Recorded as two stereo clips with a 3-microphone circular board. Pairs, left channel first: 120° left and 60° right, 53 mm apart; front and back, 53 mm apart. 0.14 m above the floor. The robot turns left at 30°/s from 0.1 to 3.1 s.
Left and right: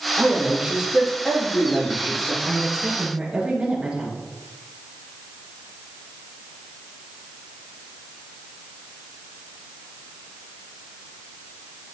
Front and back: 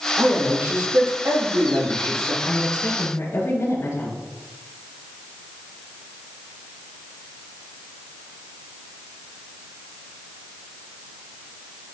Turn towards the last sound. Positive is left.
turn(degrees=0)